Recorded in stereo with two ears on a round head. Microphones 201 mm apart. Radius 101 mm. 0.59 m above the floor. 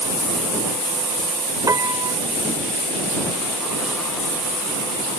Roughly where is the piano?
Centre.